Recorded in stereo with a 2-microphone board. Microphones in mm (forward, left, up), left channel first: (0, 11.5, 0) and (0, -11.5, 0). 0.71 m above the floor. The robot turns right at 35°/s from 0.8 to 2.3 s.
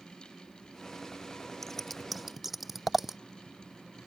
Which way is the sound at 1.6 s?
15° left (ahead or behind).